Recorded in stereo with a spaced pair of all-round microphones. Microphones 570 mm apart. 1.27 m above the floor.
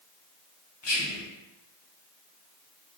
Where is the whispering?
50° left (ahead or behind), 0.8 m.